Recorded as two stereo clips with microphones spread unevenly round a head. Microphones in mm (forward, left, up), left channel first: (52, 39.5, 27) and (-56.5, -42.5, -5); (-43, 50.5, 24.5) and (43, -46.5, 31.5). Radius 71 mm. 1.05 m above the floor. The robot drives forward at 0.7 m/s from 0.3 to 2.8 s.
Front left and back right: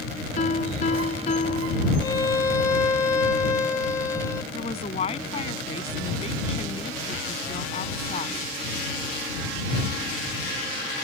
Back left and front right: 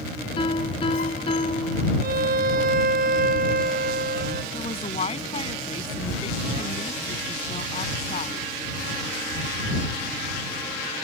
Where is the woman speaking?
85° left.